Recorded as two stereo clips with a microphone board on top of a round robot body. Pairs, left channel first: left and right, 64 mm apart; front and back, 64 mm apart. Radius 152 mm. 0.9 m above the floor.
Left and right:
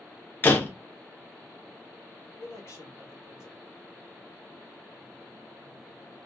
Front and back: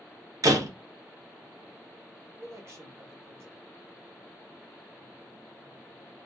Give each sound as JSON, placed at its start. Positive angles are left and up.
{"t": 0.4, "sound": "a door slam", "azimuth_deg": 150, "distance_m": 0.7}
{"t": 2.4, "sound": "a man speaking", "azimuth_deg": 135, "distance_m": 1.3}